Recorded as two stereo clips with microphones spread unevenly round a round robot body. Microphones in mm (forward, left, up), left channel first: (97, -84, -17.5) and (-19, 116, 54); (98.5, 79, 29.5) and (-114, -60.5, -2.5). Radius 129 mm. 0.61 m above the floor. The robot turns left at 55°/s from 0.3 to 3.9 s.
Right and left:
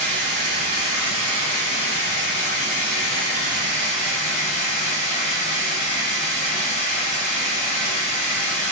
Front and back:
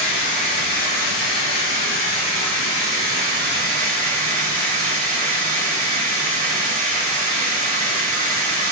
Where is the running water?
65° left, 1.6 m; by 8.7 s 130° right, 1.6 m.